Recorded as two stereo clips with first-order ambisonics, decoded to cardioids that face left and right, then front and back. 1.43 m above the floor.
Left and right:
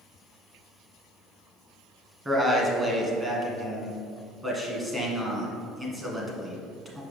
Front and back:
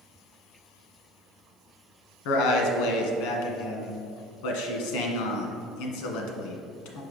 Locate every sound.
2.2 s a man speaking: 15° right, 1.5 m